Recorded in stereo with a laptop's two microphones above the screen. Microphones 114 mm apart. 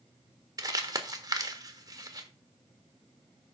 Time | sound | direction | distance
0.6 | crumpling | 35° right (ahead or behind) | 1.4 m